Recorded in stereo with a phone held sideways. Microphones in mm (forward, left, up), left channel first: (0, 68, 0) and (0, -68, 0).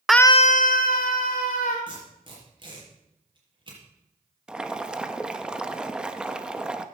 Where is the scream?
5° right (ahead or behind), 0.5 m; by 1.8 s 75° left (ahead or behind), 2.5 m.